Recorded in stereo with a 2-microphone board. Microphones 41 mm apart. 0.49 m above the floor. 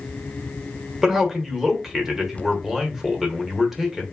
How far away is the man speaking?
About 1.4 m.